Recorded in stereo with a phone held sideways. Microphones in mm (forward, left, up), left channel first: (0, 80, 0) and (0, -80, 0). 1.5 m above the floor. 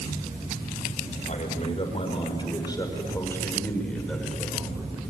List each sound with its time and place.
1.3 s a man speaking: 45° left (ahead or behind), 5.5 m; by 5.0 s 10° right (ahead or behind), 6 m